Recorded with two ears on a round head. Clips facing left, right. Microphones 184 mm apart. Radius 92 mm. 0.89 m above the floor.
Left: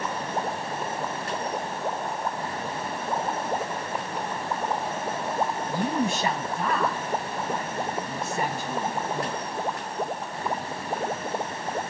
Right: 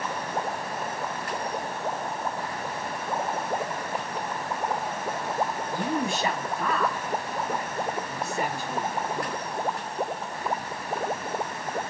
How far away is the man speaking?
About 6 m.